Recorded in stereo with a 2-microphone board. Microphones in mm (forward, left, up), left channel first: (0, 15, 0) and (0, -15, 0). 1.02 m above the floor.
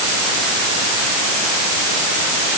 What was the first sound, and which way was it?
Only background noise.